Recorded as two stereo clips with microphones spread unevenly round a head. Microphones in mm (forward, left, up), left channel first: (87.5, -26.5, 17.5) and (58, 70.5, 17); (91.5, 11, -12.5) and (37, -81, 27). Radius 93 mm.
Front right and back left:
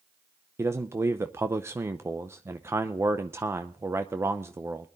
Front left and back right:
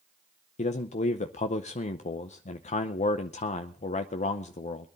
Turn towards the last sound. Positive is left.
turn(degrees=40)